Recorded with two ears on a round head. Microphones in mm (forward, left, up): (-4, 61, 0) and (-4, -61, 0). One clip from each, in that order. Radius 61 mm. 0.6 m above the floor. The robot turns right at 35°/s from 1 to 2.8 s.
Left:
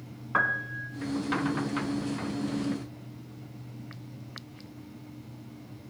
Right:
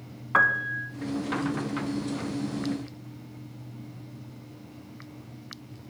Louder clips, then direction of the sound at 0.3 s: Right 5 dB; 30° right (ahead or behind).